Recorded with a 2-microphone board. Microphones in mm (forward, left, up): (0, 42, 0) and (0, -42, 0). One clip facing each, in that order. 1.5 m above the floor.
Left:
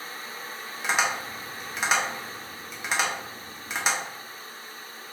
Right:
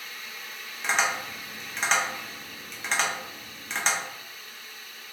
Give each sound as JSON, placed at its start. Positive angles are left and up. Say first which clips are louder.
{"t": 0.8, "sound": "tapping", "louder": "even", "side_deg": 5, "distance_m": 0.8}